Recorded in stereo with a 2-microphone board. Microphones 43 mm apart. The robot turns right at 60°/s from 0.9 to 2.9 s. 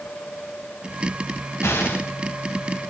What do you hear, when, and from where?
1.6 s an explosion: 75° left (ahead or behind), 4 m; by 2.1 s 55° left (ahead or behind), 4 m